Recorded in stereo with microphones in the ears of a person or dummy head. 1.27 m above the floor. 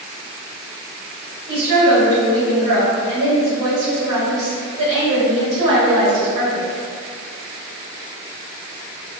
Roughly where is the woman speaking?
Right.